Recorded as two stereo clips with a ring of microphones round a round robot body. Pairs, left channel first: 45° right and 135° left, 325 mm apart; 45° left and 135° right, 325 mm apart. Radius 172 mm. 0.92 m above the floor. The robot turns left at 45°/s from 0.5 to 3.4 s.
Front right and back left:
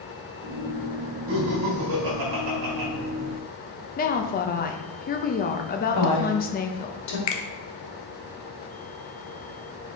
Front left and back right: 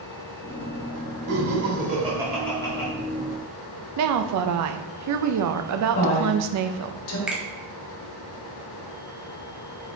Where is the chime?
No chime in this recording.